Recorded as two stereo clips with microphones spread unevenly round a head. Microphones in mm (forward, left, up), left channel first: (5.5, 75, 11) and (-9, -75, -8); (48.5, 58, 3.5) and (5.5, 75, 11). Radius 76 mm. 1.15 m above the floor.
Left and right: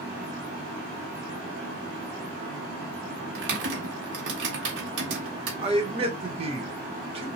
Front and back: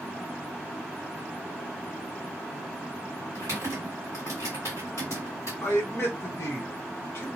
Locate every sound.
3.4 s typing on a keyboard: 90° right, 1.5 m
5.6 s a man speaking: 50° right, 1.4 m